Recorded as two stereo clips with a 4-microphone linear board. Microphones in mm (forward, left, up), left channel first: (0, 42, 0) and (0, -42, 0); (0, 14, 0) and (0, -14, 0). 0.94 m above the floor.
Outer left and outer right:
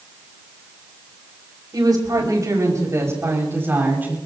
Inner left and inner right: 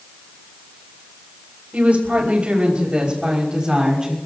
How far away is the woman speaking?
About 5.5 m.